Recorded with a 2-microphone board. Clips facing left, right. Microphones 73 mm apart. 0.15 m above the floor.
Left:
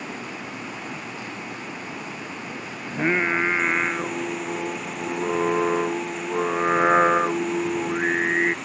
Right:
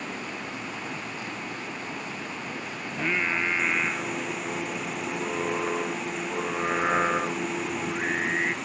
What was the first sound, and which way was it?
Running water, 5° left (ahead or behind).